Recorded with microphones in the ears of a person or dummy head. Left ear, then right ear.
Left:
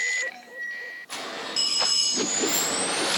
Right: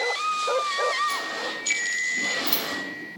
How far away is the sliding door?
About 5 m.